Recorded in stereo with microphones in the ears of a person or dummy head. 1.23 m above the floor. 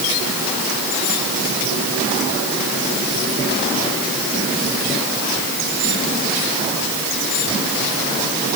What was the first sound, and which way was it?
Only background noise.